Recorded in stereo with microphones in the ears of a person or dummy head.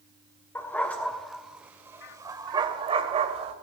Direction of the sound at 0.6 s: 10° left (ahead or behind).